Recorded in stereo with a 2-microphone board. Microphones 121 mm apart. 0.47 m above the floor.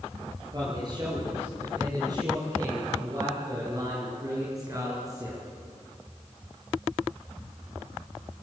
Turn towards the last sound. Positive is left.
turn(degrees=-25)  # may be behind; listen again after turning